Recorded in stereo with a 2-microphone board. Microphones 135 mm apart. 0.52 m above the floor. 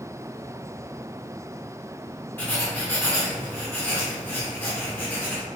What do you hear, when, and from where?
2.4 s writing: 15° left (ahead or behind), 1.8 m